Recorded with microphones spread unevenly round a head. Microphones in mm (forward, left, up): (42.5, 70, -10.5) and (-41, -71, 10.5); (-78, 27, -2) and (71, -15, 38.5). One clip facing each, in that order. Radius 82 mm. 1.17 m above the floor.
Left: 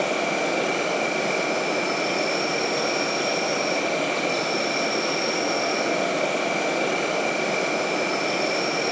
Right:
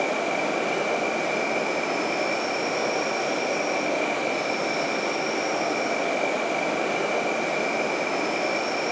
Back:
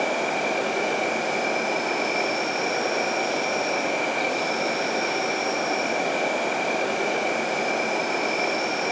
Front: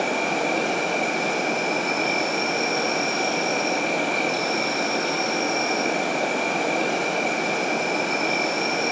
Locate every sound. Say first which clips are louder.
0.0 s an insect: left 1 dB, front 1 dB; 25° left, 8 m